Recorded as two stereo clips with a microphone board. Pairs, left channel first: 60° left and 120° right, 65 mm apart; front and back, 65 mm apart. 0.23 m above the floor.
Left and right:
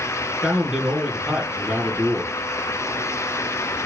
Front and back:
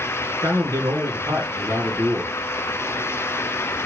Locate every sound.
0.4 s a man speaking: 165° left, 3 m